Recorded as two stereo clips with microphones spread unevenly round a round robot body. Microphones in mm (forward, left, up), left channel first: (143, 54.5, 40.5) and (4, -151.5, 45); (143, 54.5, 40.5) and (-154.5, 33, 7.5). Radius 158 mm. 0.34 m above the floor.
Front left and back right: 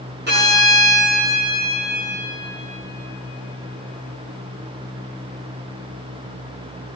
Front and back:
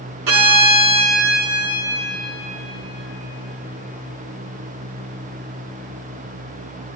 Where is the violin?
Straight behind, 3 m.